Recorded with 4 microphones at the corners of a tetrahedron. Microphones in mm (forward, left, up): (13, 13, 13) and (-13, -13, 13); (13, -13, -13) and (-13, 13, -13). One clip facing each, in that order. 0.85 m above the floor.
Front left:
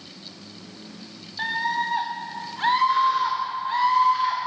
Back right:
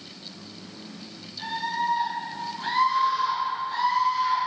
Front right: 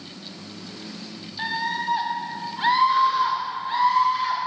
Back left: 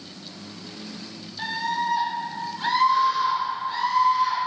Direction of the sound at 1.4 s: 25° left.